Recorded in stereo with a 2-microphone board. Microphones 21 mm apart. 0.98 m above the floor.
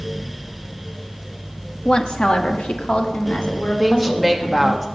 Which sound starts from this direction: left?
A woman speaking, at 1.9 s.